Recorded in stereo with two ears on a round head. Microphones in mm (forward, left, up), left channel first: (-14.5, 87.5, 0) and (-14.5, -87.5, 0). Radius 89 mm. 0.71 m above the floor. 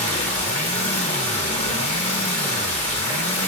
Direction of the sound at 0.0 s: 35° left (ahead or behind).